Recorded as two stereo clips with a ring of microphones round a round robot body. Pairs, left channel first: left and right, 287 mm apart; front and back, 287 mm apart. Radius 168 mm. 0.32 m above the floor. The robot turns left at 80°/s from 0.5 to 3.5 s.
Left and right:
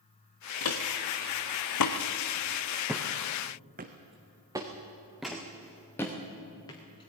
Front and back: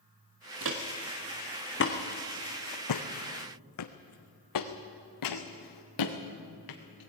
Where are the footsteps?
130° left, 2 m; by 7.1 s 15° left, 3 m.